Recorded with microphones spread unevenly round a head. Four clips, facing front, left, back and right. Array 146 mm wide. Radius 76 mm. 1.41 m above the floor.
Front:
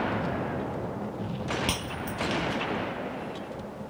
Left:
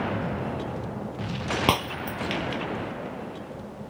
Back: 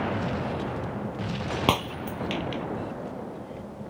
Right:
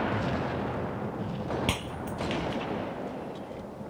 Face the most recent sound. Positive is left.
turn(degrees=135)